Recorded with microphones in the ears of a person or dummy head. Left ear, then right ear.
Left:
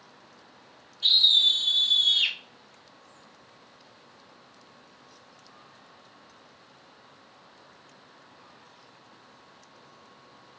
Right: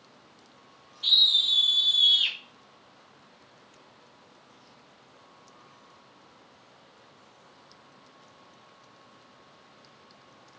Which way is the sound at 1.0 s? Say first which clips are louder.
Left 2 dB; 80° left.